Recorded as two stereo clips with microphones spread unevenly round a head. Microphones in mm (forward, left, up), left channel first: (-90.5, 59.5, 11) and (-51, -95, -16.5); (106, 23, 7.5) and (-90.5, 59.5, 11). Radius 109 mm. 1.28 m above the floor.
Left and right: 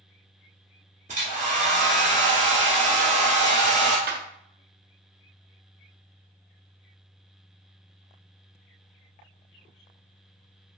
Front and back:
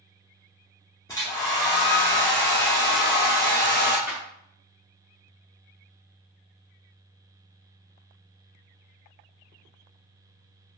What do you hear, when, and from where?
1.1 s a hair dryer: 75° right, 0.9 m
4.1 s a clap: 105° right, 0.5 m